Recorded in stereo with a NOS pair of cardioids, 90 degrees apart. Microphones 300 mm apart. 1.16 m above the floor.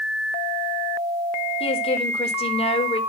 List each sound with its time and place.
1.6 s a woman speaking: 20° left, 4 m